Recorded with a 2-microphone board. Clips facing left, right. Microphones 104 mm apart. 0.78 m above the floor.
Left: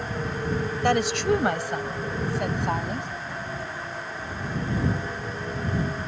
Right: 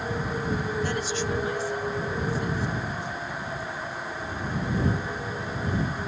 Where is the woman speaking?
70° left (ahead or behind).